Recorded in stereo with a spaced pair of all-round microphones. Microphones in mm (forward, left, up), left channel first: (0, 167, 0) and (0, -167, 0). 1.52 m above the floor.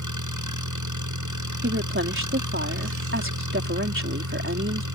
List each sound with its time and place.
0.0 s an engine running: 65° right (ahead or behind)
1.6 s a woman speaking: 40° right (ahead or behind)